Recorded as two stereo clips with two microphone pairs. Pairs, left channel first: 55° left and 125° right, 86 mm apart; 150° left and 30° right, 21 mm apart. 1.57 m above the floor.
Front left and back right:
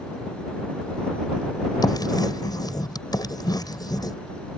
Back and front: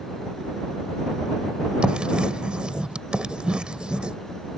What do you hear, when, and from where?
1.8 s writing: 15° left